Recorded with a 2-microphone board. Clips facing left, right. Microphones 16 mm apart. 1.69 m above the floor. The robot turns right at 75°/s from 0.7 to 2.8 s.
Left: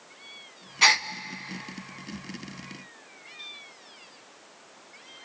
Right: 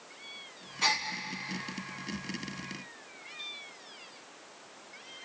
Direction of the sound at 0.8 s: 45° left (ahead or behind).